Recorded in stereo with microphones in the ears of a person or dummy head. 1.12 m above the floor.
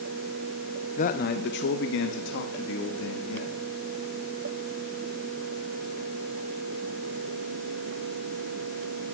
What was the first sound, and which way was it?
A man speaking, 35° left (ahead or behind).